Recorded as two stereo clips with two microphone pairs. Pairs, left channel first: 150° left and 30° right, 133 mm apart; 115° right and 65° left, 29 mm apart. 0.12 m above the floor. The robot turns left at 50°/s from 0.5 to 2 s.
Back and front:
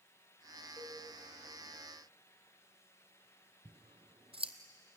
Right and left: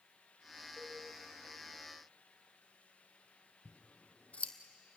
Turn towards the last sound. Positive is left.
turn(degrees=-70)